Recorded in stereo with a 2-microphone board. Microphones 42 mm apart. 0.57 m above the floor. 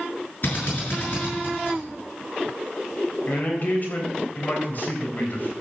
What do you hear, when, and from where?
0.4 s a drill: 45° left (ahead or behind), 7 m
3.3 s a man speaking: 45° left (ahead or behind), 3.5 m